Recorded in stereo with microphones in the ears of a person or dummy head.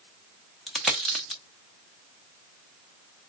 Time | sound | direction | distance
0.7 | a dropped coin | centre (ahead or behind) | 0.9 m